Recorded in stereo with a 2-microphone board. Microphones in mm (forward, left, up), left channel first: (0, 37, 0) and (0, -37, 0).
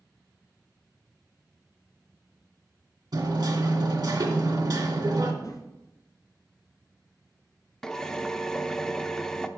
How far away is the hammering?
About 2 m.